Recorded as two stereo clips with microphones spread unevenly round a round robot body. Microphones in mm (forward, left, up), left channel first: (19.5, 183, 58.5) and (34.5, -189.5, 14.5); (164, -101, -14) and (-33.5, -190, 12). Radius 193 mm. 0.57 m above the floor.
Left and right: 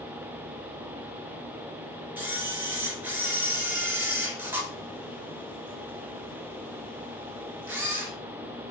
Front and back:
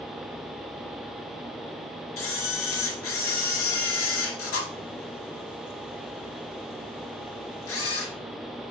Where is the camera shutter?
Straight ahead, 1.8 m.